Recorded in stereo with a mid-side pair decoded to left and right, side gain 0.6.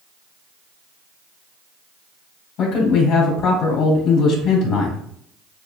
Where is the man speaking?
50° left, 2.5 m.